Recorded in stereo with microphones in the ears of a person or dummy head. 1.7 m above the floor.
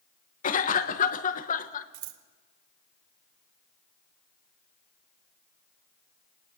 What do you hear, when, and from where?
0.4 s a cough: 45° left (ahead or behind), 1.4 m
1.9 s scissors: 80° right, 1.4 m